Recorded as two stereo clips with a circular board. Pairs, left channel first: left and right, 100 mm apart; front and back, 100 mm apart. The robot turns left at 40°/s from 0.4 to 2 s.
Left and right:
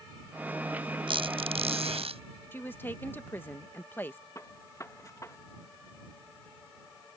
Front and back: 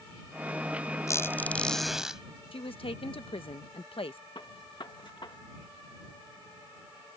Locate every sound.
1.1 s a squeak: 60° right; by 2.2 s 95° right
2.5 s a woman speaking: 20° left
4.3 s a gunshot: 35° left